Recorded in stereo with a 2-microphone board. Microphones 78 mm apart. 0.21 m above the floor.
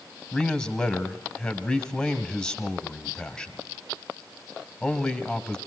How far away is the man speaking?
About 1.4 m.